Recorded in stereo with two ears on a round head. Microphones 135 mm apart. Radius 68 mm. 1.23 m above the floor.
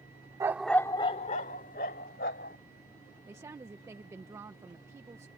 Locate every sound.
0.4 s a dog barking: 20° right (ahead or behind); by 2.6 s 70° left (ahead or behind)
3.3 s a woman speaking: 20° right (ahead or behind)